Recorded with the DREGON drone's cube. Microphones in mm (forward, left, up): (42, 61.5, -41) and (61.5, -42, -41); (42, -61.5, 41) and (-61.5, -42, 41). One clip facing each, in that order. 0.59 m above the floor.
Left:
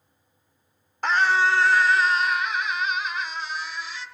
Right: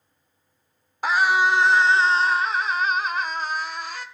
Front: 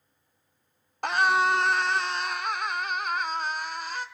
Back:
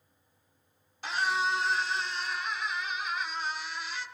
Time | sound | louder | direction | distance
1.0 | a scream | right 1 dB, front 7 dB | straight ahead | 1.3 m